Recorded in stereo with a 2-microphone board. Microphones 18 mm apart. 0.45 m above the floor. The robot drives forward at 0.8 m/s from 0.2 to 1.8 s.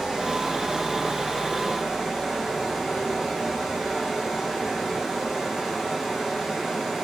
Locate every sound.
0.0 s running water: 50° right (ahead or behind), 4.5 m; by 7.1 s 40° right (ahead or behind), 5.5 m